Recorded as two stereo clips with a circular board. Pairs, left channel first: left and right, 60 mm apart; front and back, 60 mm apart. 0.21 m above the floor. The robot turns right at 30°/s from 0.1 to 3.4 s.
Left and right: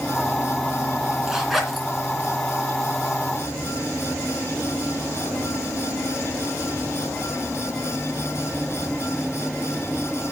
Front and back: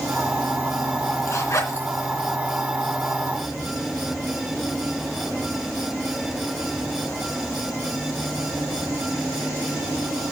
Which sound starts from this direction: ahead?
A zipper, at 1.3 s.